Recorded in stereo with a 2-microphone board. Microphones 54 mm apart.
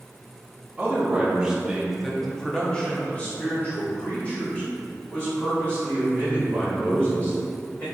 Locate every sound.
0.8 s a man speaking: 20° right (ahead or behind), 1.1 m; by 7.8 s 30° left (ahead or behind), 3.5 m